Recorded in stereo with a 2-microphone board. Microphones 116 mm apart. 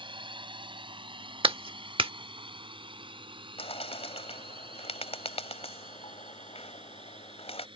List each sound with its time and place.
0.0 s a drone: 45° right (ahead or behind)
1.4 s a clap: 50° right (ahead or behind)
3.6 s a bird: 60° left (ahead or behind)